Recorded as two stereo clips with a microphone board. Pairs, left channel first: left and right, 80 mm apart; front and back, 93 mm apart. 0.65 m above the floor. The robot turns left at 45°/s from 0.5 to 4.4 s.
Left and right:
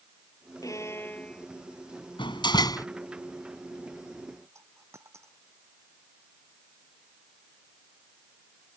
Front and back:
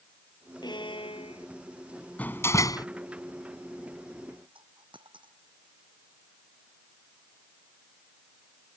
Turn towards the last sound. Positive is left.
turn(degrees=-145)